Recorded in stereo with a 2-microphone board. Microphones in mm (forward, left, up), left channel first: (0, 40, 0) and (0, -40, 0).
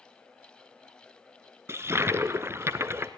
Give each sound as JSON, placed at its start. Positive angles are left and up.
{"t": 1.7, "sound": "a toilet flushing", "side_deg": -35, "distance_m": 0.8}